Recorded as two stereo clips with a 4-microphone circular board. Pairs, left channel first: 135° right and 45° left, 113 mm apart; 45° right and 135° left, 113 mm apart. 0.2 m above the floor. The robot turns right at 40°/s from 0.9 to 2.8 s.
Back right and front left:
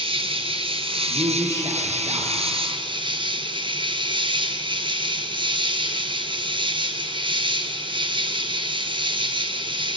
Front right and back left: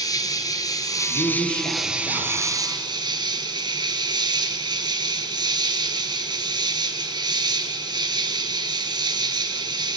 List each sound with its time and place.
0.0 s an insect: 10° left, 1.5 m; by 10.0 s 85° left, 1.5 m
1.1 s a man speaking: 25° right, 5 m; by 2.5 s 35° left, 5 m